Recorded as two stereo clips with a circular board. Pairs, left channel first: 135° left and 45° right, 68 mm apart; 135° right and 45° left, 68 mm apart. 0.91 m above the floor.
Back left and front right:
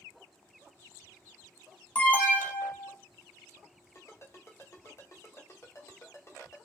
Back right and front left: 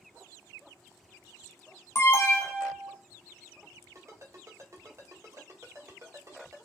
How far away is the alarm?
About 1.0 m.